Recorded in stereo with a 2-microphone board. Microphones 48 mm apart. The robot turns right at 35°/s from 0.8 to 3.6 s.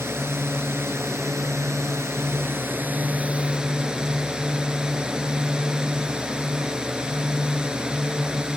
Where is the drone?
115° right; by 8.6 s 20° right.